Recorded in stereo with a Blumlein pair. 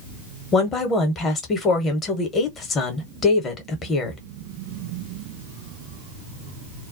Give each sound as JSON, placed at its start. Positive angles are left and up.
{"t": 0.5, "sound": "a woman speaking", "azimuth_deg": 25, "distance_m": 0.9}